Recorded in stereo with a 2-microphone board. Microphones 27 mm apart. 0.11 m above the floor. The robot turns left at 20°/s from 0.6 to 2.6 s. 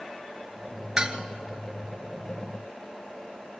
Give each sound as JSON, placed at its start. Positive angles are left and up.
{"t": 1.0, "sound": "dishes clattering", "side_deg": -25, "distance_m": 1.1}